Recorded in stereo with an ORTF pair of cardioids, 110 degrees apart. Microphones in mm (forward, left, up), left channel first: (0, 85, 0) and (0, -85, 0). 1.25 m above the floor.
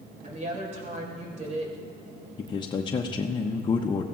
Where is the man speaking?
25° left, 0.7 m.